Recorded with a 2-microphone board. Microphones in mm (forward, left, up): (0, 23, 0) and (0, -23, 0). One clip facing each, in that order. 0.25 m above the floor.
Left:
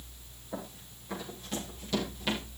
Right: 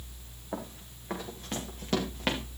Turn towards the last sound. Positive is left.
turn(degrees=-50)  # may be behind; listen again after turning